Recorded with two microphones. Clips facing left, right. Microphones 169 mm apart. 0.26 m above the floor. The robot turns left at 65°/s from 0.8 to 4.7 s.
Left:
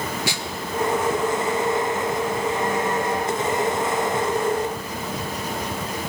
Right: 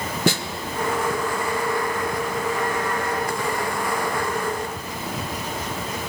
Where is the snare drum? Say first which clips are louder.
Right 7 dB; 55° right (ahead or behind), 0.7 m.